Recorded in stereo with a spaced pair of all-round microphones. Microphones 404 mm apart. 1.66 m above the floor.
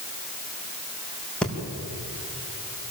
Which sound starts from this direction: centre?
Breathing, at 1.4 s.